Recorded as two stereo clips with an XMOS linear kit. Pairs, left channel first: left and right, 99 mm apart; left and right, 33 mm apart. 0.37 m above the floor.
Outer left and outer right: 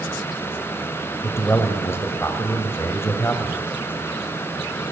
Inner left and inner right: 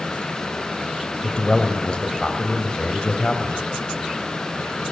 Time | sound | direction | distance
1.2 | a man speaking | 25° left (ahead or behind) | 2.5 m